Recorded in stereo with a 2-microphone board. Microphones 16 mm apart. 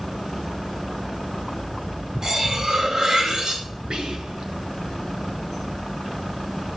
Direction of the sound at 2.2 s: 45° right (ahead or behind).